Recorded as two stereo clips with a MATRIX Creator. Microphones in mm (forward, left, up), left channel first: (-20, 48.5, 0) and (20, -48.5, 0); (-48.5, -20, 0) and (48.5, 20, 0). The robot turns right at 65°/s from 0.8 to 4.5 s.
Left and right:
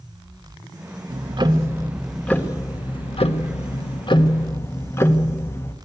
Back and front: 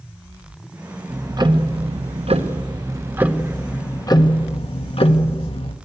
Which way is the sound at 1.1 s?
45° right.